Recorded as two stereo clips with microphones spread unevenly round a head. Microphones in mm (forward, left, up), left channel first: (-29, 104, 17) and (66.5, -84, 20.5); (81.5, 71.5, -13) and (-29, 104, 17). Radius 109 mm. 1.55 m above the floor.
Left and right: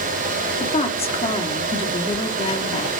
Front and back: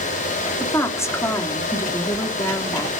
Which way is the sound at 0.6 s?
55° left.